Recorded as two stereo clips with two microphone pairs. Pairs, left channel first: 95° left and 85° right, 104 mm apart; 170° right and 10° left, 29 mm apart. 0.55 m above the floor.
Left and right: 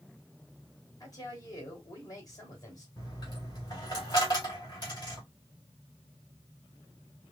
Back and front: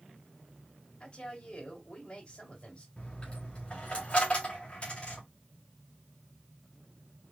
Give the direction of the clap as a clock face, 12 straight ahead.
I don't hear a clap.